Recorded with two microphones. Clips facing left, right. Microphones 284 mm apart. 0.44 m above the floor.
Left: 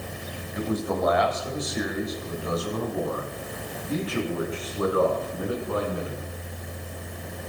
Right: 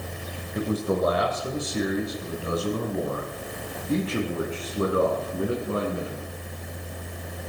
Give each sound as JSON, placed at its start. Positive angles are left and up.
{"t": 0.6, "sound": "a man speaking", "side_deg": -35, "distance_m": 2.5}